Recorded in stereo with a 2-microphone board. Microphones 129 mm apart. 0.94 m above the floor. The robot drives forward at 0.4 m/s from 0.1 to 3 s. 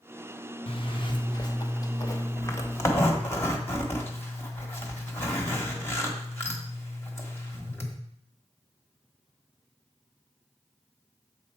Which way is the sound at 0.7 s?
50° left (ahead or behind).